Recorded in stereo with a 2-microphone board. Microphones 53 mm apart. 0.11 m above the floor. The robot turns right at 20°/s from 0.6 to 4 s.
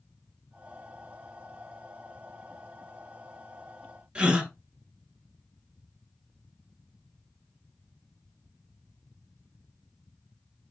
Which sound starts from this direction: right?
A gasp, at 4.2 s.